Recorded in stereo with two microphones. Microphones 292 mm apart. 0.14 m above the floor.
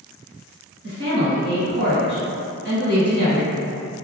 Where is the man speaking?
40° right (ahead or behind), 1.5 m.